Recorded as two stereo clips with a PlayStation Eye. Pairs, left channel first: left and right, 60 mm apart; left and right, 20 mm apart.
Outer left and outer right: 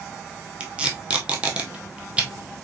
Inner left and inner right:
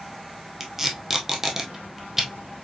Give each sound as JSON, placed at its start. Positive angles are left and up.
{"t": 0.6, "sound": "tape being pulled", "side_deg": -20, "distance_m": 1.1}